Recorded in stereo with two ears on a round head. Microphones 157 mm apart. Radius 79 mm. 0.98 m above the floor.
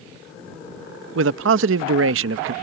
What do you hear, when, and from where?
1.1 s a man speaking: 75° right (ahead or behind)